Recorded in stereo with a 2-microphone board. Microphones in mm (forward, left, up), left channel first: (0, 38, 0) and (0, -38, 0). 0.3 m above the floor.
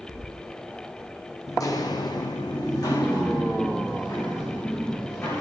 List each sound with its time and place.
1.5 s footsteps: 45° left (ahead or behind), 0.7 m; by 5.4 s 35° left (ahead or behind), 2.5 m